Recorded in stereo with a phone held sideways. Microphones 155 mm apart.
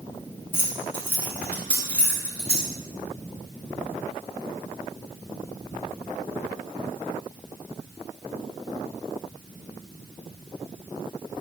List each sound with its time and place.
0.5 s keys jangling: 15° left (ahead or behind), 2.5 m; by 2.7 s 5° left (ahead or behind), 4.5 m